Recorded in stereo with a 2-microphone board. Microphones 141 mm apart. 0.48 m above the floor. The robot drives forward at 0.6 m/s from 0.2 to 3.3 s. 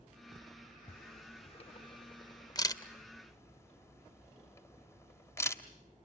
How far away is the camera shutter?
About 0.7 m.